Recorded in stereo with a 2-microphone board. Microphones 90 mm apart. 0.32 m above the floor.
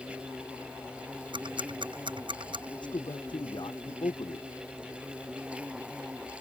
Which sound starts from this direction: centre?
An insect, at 0.0 s.